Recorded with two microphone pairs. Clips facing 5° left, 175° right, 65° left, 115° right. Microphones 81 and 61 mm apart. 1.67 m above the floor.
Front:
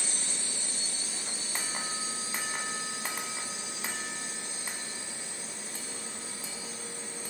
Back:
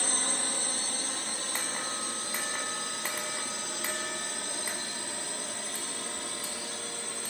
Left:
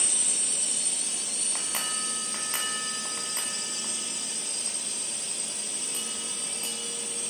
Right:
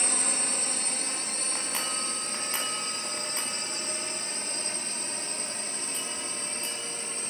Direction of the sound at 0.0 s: 150° right.